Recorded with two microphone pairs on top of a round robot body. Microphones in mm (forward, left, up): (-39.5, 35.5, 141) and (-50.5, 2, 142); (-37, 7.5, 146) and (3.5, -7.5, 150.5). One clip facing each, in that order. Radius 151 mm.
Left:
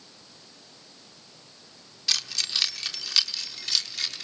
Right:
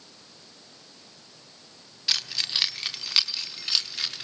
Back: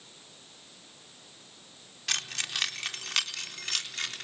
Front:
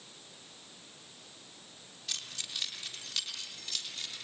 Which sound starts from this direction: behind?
Keys jangling, at 2.1 s.